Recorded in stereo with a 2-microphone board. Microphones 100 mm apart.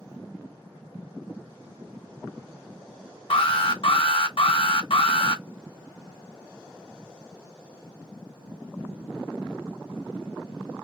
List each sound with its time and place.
3.3 s an alarm: 60° left (ahead or behind), 0.6 m